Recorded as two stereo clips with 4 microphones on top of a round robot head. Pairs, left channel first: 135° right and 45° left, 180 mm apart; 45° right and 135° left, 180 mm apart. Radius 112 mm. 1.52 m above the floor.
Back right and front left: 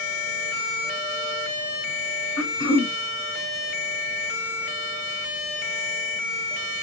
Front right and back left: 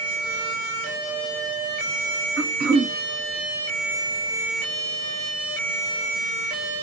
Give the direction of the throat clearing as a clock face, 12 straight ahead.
6 o'clock.